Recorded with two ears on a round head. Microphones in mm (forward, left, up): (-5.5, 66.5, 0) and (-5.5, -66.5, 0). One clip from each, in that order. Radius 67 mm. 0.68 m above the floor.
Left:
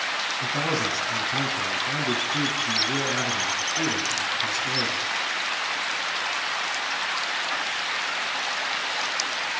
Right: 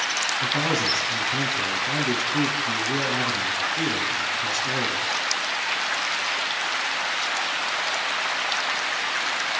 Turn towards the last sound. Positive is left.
turn(degrees=0)  # may be behind; listen again after turning